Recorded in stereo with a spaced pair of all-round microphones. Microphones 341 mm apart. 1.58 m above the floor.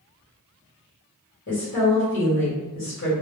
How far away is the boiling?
No boiling in this recording.